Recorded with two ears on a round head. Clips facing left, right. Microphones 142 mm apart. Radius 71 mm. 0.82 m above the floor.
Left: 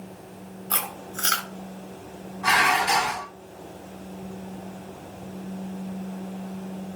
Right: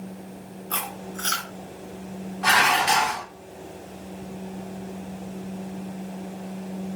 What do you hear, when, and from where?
0.7 s chewing: 55° left (ahead or behind), 1.0 m
2.4 s dishes clattering: 70° right (ahead or behind), 1.2 m